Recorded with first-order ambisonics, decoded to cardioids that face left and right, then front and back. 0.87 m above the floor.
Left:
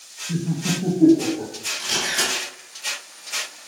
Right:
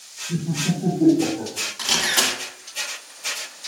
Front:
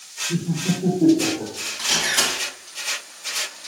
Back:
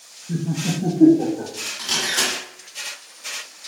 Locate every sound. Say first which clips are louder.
0.3 s laughter: even, back 3 dB; 155° left, 0.9 m; by 1.5 s 175° right, 1.4 m
1.8 s a camera shutter: right 3 dB, front 1 dB; 90° right, 1.1 m